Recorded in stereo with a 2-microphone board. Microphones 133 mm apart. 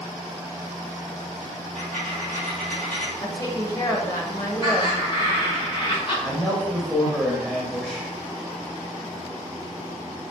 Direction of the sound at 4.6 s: 40° left (ahead or behind).